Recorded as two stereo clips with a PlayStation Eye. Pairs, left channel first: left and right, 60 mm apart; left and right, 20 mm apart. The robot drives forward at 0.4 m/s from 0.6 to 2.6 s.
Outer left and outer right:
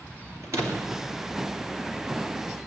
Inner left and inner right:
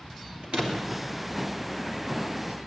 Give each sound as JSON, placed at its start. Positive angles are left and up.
{"t": 0.4, "sound": "a door slam", "side_deg": -55, "distance_m": 3.0}